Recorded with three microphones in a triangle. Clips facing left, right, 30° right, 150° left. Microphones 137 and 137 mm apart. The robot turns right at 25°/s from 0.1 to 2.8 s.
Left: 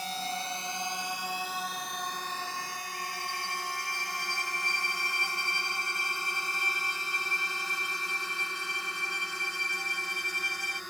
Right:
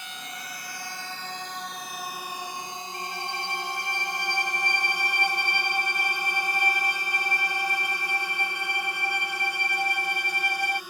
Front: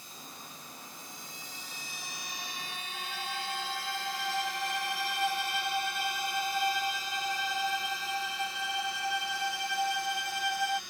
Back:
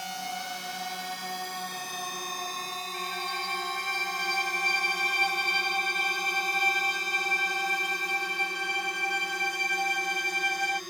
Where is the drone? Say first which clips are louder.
Left 6 dB, back 15 dB; 145° left; by 10.9 s 170° right.